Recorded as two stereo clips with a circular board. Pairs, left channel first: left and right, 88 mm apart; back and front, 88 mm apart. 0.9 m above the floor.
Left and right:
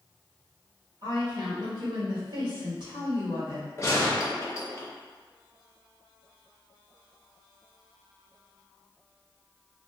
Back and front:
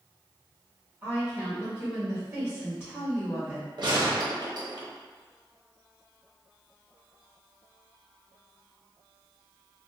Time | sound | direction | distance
1.0 | a woman speaking | 75° right | 1.5 m
3.8 | a gunshot | 30° left | 0.7 m